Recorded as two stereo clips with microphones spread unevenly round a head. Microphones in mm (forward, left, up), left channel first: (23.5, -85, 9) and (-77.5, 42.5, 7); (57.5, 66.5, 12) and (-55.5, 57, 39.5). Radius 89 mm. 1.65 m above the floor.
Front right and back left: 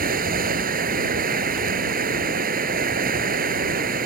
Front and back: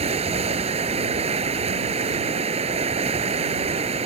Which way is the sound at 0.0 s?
160° left.